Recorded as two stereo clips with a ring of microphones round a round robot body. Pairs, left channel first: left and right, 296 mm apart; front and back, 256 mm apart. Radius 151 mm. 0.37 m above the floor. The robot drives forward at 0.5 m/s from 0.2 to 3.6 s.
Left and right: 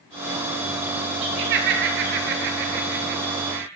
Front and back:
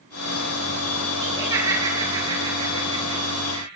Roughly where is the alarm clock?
No alarm clock in this recording.